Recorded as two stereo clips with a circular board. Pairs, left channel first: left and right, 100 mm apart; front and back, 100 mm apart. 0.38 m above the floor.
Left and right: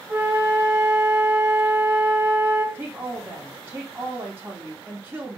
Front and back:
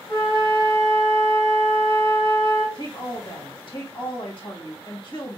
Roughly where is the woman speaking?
Ahead right.